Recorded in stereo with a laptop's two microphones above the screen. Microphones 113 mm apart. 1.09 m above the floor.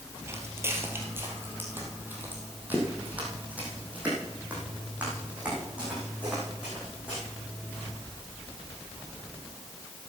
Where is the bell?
I don't hear a bell.